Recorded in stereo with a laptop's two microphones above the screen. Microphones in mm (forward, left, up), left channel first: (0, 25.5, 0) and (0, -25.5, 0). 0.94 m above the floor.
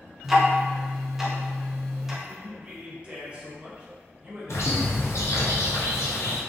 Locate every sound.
0.2 s ticking: 5° right (ahead or behind), 0.7 m
2.2 s a man speaking: 25° right (ahead or behind), 0.6 m
4.5 s a bird: 65° left (ahead or behind), 0.6 m